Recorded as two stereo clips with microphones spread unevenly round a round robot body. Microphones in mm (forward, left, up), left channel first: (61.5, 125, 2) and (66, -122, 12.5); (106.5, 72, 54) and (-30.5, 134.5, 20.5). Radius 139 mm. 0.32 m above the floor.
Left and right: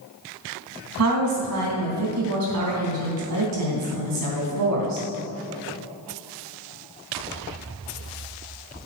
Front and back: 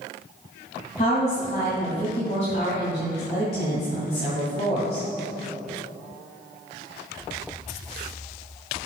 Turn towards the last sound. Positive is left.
turn(degrees=-85)